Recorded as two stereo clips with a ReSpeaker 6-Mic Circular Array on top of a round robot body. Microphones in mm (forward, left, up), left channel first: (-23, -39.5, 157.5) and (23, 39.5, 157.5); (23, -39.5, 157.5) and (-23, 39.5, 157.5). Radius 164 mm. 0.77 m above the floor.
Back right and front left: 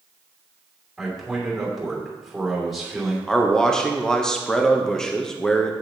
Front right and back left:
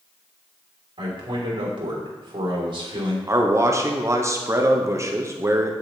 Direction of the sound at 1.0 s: 150° left.